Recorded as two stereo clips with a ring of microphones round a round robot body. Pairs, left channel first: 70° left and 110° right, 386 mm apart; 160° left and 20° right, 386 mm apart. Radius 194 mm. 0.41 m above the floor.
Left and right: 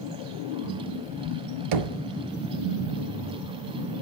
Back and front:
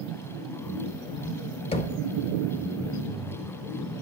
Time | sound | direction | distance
1.7 | knocking | 130° right | 0.6 m